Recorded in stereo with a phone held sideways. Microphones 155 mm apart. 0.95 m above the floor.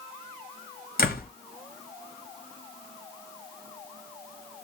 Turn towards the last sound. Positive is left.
turn(degrees=75)  # may be behind; listen again after turning